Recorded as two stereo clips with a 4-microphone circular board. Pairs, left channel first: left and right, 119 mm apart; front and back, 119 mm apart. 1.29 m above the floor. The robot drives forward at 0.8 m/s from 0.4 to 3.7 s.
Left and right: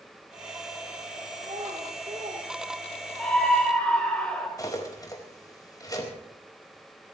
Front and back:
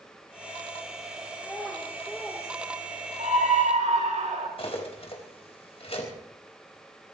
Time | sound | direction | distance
1.4 | a child speaking | 75° right | 3 m
3.2 | a scream | 170° left | 6 m
4.6 | cutlery clinking | 35° left | 4 m